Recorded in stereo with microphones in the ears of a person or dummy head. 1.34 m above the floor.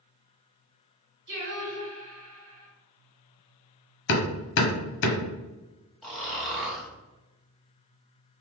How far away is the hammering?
About 0.8 m.